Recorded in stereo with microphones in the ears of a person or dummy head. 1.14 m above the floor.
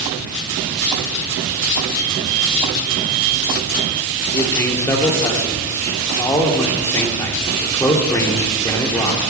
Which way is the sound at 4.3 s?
15° left (ahead or behind).